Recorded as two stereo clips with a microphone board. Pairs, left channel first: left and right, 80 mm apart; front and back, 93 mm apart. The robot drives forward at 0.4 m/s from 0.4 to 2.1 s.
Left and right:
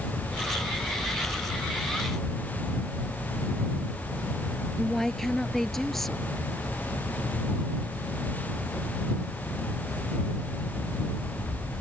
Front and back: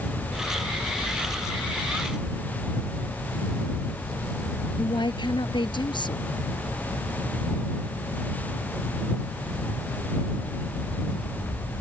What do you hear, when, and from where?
4.8 s a woman speaking: 5° left